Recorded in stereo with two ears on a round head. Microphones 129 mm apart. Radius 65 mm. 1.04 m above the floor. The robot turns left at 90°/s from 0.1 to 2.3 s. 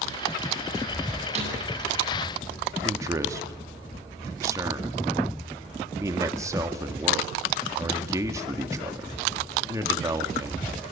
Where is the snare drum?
40° right (ahead or behind), 9 m; by 1.6 s 65° right (ahead or behind), 9 m.